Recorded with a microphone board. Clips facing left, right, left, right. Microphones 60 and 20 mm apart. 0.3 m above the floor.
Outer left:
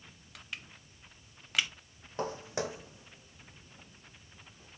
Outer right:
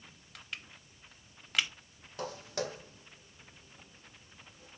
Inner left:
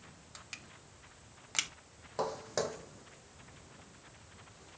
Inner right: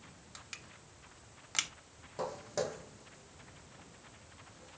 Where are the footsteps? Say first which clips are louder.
Outer left 2 dB, inner left 2 dB; 30° left (ahead or behind), 0.6 m; by 4.8 s 5° left (ahead or behind), 1.8 m.